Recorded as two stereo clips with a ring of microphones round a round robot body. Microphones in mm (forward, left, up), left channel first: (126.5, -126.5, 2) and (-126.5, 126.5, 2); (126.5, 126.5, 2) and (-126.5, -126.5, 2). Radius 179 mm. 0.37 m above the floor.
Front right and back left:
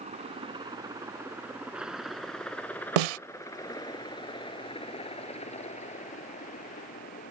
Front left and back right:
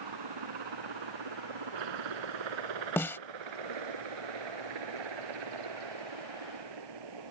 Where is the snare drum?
130° left.